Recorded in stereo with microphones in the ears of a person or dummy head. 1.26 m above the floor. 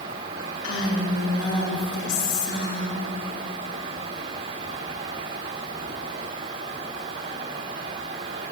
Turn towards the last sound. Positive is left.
turn(degrees=80)